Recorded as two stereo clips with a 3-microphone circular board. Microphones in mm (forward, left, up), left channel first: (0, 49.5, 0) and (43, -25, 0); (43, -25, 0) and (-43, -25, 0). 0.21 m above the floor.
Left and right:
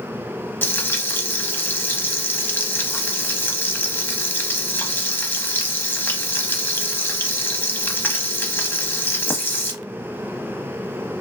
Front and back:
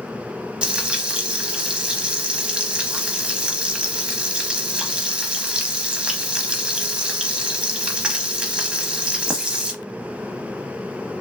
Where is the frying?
115° left, 0.7 m.